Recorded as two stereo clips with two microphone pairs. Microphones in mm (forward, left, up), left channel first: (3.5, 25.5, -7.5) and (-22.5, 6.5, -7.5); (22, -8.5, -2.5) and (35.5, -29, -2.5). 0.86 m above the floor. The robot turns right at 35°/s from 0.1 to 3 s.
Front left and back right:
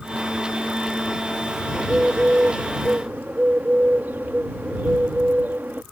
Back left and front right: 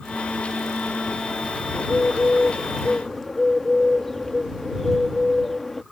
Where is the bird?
170° left; by 5.8 s 145° right.